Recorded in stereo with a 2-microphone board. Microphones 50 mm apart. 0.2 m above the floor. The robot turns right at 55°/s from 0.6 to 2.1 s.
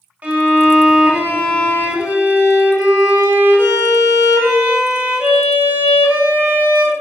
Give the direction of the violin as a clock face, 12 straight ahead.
4 o'clock.